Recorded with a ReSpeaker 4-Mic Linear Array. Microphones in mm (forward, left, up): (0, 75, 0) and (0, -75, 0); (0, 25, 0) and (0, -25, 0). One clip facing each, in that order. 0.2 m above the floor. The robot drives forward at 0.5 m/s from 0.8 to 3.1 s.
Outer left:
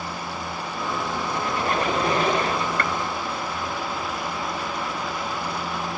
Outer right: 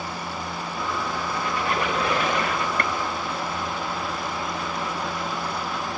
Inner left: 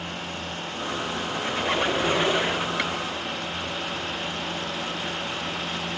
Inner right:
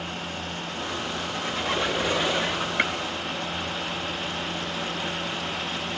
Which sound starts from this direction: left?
A squeak, at 1.3 s.